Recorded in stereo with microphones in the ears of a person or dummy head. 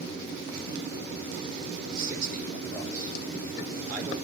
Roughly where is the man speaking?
Right.